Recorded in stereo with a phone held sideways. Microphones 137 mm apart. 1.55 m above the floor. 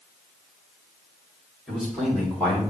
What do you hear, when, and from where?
1.7 s a man speaking: 5° left (ahead or behind), 3.5 m; by 2.7 s 15° left (ahead or behind), 3.5 m